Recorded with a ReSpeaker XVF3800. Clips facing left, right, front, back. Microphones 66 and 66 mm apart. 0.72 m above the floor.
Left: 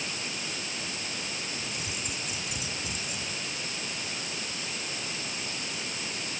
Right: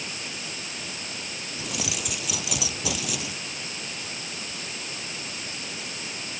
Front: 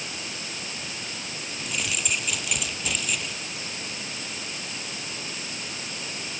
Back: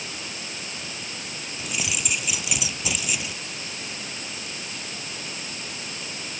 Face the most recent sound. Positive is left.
turn(degrees=-95)